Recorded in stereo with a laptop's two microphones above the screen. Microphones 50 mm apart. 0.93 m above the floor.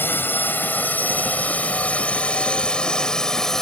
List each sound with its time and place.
0.0 s a drone: 40° left (ahead or behind); by 3.6 s 10° left (ahead or behind)